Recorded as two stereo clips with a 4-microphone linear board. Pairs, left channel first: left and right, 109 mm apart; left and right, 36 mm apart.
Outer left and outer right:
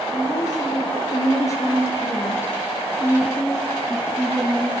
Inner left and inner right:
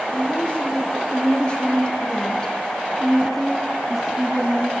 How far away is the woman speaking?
About 4 m.